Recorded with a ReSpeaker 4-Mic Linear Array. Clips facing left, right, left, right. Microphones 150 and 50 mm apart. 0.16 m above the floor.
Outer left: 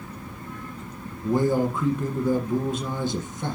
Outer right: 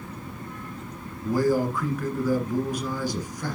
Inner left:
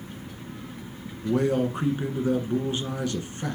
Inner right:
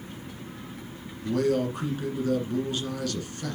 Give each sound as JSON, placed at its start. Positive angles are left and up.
{"t": 1.2, "sound": "a man speaking", "side_deg": 25, "distance_m": 1.7}